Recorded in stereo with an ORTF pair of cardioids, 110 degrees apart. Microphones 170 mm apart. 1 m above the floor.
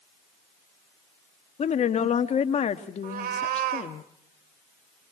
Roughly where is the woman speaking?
Ahead left.